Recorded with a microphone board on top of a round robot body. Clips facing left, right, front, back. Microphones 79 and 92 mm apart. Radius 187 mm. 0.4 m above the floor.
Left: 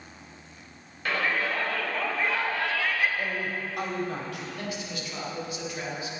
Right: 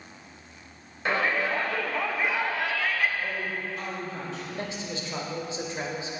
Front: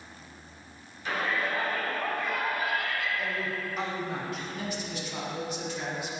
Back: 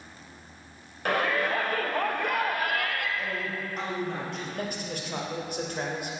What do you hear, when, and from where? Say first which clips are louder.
1.1 s a shout: right 2 dB, back 4 dB; 155° right, 2.5 m; by 3.1 s 175° left, 1.6 m
3.2 s a man speaking: left 1 dB, even; 85° left, 3.5 m
4.5 s a man speaking: right 1 dB, back 1 dB; 150° right, 3 m